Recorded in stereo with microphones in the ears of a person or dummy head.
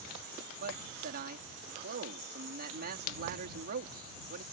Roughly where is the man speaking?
Right.